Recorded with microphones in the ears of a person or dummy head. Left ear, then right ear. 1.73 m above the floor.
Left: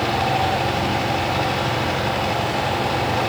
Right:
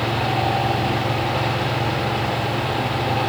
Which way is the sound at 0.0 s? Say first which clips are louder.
Left 2 dB; 10° left (ahead or behind).